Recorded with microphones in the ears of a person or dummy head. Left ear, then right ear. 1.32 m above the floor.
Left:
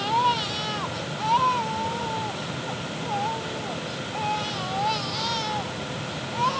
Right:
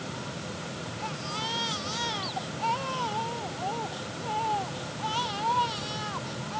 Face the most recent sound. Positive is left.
No sound to turn to.